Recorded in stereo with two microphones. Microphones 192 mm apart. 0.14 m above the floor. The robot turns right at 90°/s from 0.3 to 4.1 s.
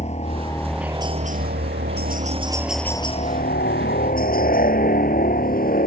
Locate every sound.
0.0 s a helicopter: 140° left; by 5.9 s 120° left